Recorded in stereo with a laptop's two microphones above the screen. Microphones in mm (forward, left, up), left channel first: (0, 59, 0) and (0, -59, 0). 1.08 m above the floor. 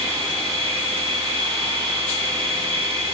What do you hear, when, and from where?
0.0 s a machine running: 50° right (ahead or behind), 1.1 m